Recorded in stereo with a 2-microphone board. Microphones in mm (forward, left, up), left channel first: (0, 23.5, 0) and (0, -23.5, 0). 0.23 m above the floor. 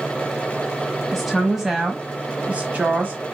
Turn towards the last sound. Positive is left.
turn(degrees=-40)  # may be behind; listen again after turning